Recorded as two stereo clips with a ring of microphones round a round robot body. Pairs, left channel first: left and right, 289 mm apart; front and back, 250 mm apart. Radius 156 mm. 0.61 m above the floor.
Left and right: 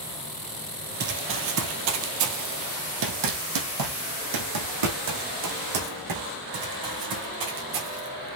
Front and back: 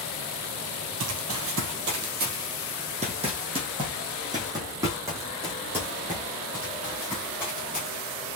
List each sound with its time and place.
1.0 s running footsteps: 145° right, 1.1 m; by 8.2 s 95° right, 4.5 m